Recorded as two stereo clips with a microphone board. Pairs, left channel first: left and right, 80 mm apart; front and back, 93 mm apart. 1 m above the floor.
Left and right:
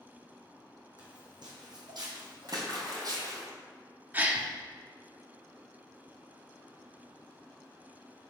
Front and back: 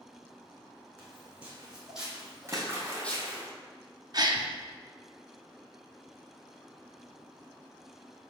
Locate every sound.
1.0 s footsteps: 105° right, 3 m; by 3.4 s 65° right, 1.6 m
2.5 s a splash: 120° right, 1.8 m
4.1 s a gasp: 150° right, 0.6 m